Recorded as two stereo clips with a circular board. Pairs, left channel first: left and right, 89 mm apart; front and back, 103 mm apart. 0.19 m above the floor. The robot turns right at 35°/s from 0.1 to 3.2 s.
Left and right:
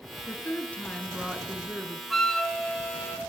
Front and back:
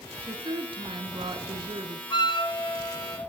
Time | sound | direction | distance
0.3 | a woman speaking | 145° left | 1.7 m
2.1 | a flute | straight ahead | 1.4 m